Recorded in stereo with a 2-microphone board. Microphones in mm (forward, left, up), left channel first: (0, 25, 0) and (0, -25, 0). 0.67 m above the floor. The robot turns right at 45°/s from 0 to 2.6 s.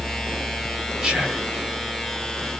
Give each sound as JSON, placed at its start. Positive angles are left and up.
{"t": 1.0, "sound": "whispering", "side_deg": -15, "distance_m": 1.1}